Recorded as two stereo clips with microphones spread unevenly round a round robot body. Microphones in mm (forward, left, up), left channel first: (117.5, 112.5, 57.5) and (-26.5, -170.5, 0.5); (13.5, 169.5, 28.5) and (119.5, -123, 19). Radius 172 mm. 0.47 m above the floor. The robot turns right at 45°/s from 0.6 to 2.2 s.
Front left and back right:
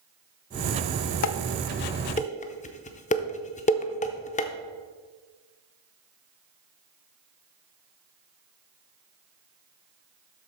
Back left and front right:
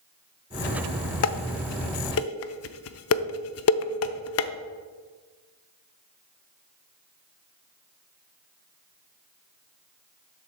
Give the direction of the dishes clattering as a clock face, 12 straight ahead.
9 o'clock.